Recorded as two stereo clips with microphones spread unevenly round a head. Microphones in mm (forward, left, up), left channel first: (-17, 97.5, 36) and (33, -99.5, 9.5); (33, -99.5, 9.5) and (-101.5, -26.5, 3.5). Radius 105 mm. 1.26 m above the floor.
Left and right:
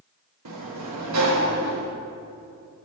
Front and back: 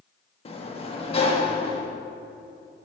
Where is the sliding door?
80° right, 1.3 m.